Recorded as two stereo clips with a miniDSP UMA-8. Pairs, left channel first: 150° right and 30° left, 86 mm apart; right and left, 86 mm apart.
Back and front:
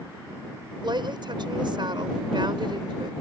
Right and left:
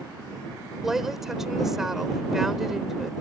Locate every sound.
0.8 s a woman speaking: 5° left